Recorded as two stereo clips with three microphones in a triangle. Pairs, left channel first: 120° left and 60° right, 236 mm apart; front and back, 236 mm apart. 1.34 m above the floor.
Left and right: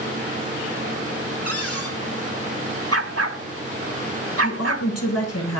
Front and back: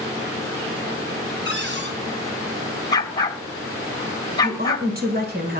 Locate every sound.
1.4 s a cupboard door: 135° left, 6 m
2.9 s a dog barking: 70° right, 2.5 m
4.4 s a woman speaking: 130° left, 7 m